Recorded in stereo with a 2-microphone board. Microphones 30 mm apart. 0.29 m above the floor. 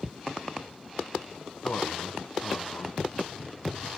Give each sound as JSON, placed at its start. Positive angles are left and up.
{"t": 1.6, "sound": "a man speaking", "side_deg": 65, "distance_m": 3.0}